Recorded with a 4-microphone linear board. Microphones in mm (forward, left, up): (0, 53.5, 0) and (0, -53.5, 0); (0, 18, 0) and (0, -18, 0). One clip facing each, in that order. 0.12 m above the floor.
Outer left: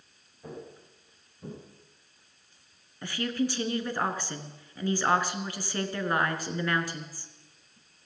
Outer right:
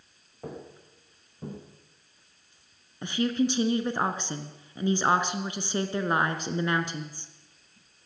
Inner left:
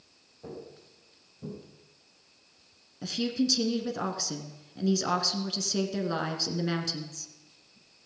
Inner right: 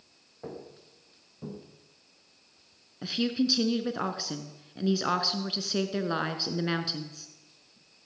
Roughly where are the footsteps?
Right.